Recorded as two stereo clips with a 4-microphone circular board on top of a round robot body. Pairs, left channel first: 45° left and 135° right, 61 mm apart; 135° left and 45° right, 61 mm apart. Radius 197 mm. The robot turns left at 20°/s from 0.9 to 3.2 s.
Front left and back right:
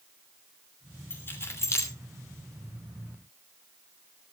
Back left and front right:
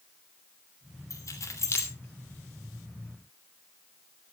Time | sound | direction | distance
1.1 | keys jangling | 100° left | 3 m